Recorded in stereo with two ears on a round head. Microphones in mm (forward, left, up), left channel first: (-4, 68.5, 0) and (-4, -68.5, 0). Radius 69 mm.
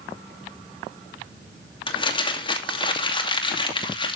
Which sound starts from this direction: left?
Crumpling, at 1.9 s.